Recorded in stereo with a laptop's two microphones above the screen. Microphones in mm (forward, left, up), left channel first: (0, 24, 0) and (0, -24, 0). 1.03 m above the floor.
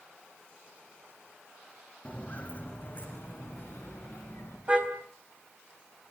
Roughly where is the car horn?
Right.